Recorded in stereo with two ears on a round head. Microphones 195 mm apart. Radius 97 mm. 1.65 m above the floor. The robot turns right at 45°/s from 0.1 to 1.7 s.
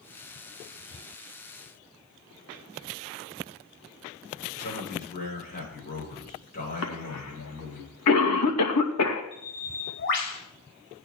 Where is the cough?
80° left, 2.5 m.